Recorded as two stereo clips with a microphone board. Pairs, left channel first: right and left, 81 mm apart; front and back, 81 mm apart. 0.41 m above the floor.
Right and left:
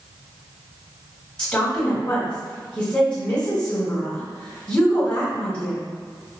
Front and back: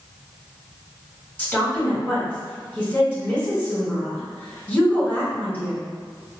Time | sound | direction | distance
1.4 | a woman speaking | 25° right | 1.4 m